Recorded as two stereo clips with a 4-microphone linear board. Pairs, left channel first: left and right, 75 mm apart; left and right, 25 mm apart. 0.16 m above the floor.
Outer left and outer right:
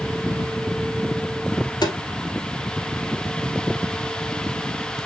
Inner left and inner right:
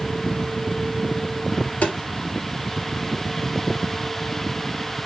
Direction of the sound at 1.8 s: 65° left (ahead or behind).